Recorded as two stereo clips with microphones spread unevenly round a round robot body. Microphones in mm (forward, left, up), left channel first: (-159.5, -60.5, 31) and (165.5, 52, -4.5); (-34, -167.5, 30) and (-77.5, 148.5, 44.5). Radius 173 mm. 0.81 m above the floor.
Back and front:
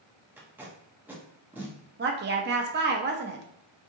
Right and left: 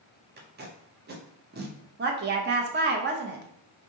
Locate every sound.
0.4 s tape being pulled: 85° left, 0.6 m
2.0 s a woman speaking: 55° left, 0.6 m